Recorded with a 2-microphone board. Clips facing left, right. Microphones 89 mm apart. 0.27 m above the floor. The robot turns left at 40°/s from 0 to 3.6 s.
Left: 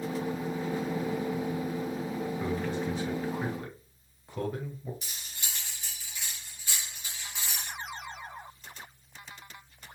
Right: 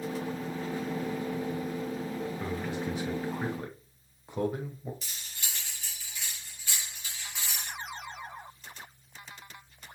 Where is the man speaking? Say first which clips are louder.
Left 2 dB; 5° right (ahead or behind), 1.1 m; by 4.9 s 20° right (ahead or behind), 1.1 m.